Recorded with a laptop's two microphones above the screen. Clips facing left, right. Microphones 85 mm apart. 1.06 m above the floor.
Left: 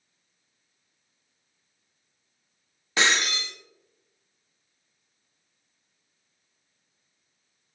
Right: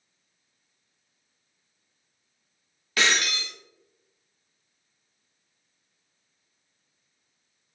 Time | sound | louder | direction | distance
3.0 | breaking glass | left 1 dB | 25° left (ahead or behind) | 1.0 m